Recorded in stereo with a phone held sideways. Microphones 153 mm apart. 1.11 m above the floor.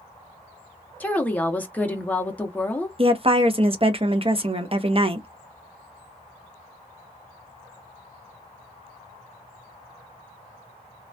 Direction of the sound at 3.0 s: 35° right (ahead or behind).